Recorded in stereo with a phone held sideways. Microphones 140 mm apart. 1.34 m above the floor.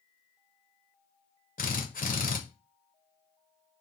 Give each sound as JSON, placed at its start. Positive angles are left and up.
{"t": 1.6, "sound": "a drill", "side_deg": 70, "distance_m": 0.5}